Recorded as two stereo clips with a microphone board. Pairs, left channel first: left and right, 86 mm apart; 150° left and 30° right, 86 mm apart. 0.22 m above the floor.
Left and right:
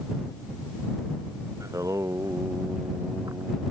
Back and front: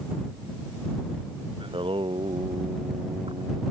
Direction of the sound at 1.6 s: 40° right.